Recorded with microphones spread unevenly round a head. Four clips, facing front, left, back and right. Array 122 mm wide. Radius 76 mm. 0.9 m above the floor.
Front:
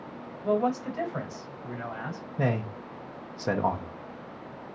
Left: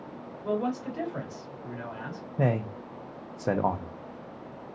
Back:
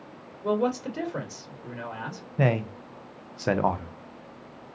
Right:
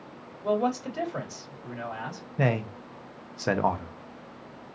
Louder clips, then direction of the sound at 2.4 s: Even, back 4 dB; 125° left.